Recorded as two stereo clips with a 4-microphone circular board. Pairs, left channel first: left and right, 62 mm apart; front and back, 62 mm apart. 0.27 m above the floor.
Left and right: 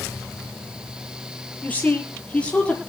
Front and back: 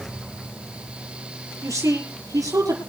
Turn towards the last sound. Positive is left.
turn(degrees=160)